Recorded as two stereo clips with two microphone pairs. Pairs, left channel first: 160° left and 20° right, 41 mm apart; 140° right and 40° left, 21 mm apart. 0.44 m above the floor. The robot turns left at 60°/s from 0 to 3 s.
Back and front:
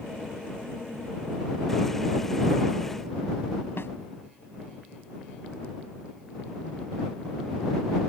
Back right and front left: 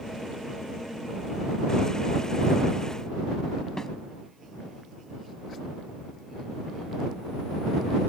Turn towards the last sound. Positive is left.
turn(degrees=160)